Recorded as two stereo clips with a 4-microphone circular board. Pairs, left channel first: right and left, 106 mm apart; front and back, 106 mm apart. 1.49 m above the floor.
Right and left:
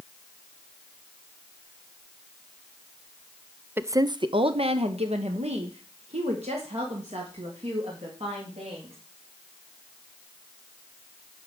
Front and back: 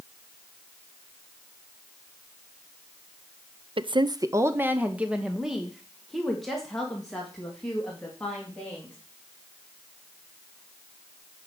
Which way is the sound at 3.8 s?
160° left.